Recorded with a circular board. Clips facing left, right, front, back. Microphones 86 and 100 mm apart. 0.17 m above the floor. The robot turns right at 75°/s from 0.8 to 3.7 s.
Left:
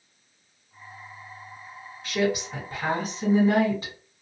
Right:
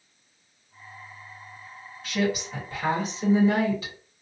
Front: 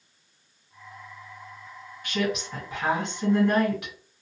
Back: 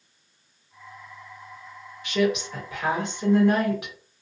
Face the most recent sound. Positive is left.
turn(degrees=115)